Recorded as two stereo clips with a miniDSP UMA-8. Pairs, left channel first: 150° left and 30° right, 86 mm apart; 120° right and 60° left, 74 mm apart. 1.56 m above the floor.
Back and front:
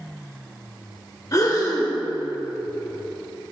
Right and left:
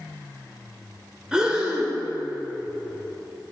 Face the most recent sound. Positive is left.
turn(degrees=135)